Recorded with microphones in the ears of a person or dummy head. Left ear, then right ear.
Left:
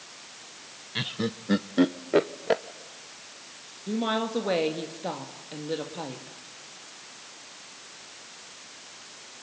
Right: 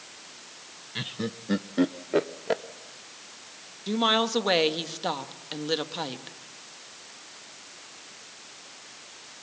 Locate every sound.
0.9 s laughter: 5° left (ahead or behind), 0.6 m
3.9 s a woman speaking: 40° right (ahead or behind), 1.7 m